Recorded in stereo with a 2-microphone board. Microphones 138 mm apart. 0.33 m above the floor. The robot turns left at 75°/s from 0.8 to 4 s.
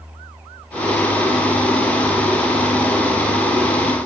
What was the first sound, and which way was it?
Only background noise.